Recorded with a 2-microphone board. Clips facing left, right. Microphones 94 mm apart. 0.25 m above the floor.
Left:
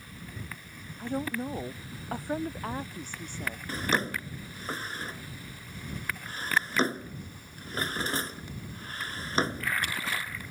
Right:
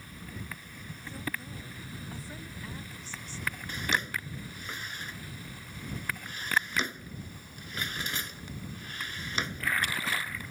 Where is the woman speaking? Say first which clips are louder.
Left 8 dB; 60° left (ahead or behind).